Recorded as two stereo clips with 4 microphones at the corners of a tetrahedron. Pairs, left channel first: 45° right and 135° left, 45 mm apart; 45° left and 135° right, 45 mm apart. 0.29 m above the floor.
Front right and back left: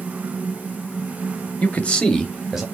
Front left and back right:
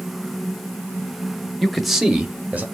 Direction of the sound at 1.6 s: 35° right.